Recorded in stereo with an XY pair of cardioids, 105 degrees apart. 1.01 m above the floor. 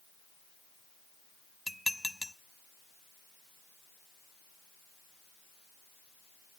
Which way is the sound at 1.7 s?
Straight ahead.